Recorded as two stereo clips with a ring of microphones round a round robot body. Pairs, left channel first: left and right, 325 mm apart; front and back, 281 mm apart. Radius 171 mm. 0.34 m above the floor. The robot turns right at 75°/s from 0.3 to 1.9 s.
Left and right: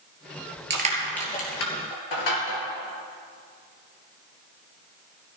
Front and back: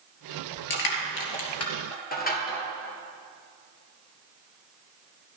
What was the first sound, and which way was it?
Crushing, 30° right.